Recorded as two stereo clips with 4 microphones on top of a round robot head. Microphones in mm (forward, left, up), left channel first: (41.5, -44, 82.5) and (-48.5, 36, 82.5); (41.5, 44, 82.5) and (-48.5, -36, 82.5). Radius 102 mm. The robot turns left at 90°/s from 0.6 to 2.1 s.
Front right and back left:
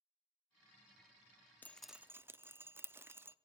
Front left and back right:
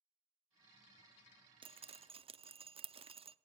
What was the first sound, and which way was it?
Dripping, 110° right.